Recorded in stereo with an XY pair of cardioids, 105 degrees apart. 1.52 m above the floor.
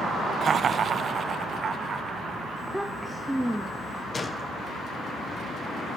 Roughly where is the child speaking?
Ahead.